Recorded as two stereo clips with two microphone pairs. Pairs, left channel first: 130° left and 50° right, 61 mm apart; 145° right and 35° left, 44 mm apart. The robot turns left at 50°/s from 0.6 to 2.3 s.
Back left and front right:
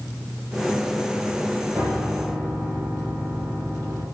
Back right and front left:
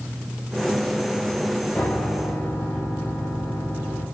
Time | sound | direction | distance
1.8 | a piano | 100° right | 7 m